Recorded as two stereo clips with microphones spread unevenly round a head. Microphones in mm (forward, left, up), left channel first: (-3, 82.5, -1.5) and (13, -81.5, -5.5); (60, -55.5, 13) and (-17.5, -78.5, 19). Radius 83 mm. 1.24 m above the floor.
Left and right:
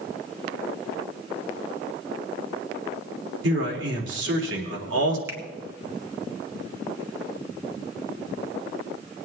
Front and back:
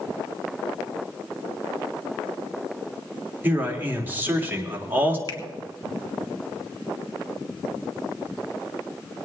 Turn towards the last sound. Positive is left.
turn(degrees=-10)